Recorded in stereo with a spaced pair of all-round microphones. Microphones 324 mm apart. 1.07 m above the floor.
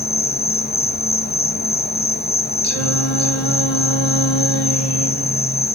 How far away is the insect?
About 0.7 m.